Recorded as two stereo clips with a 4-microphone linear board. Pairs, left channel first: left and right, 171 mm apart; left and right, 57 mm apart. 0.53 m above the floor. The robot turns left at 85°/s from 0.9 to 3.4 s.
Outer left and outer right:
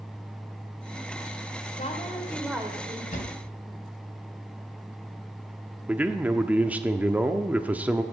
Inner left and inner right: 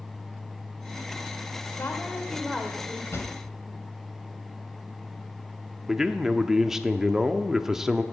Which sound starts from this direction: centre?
A man speaking, at 5.9 s.